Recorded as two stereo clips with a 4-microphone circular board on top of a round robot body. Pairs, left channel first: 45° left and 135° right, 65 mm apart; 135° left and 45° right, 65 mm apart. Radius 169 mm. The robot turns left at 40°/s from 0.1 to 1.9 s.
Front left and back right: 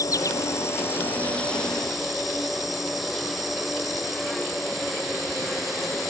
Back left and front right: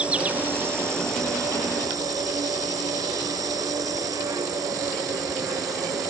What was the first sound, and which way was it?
An insect, 25° left.